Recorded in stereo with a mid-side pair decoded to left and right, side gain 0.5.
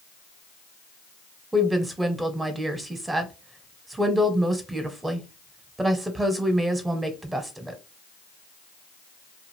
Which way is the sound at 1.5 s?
20° right.